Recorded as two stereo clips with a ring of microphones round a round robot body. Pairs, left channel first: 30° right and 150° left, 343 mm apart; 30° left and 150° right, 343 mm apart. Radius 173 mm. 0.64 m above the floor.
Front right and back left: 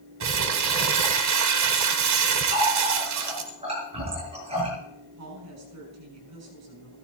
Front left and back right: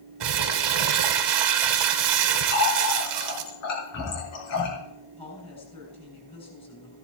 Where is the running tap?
75° left, 7 m.